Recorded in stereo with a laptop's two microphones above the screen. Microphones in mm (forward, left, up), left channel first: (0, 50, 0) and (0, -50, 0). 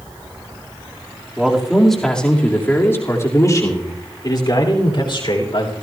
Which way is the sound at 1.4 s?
10° right (ahead or behind).